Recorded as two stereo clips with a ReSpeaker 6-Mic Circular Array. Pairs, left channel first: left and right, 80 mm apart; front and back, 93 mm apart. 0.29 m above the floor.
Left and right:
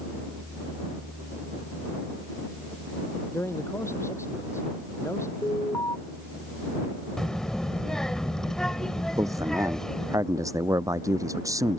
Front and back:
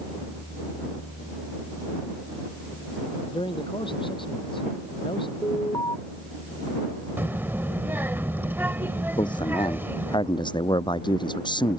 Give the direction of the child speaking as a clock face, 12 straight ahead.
7 o'clock.